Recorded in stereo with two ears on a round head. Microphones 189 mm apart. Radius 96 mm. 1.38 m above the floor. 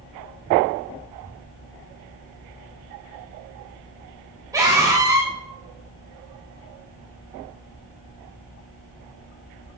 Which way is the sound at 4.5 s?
15° right (ahead or behind).